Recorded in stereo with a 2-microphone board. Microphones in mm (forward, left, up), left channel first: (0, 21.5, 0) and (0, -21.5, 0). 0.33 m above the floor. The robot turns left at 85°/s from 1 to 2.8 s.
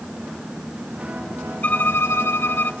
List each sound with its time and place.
1.6 s a violin: 140° left, 0.6 m; by 2.7 s 50° left, 0.6 m